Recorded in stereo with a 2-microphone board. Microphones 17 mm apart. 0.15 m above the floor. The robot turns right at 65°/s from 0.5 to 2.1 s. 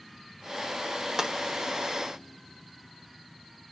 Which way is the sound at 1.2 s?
25° right (ahead or behind).